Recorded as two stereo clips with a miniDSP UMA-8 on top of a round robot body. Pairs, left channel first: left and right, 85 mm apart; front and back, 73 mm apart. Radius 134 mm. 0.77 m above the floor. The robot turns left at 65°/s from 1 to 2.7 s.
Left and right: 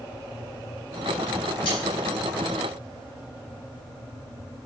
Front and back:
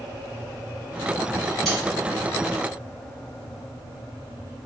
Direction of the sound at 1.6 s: 85° left.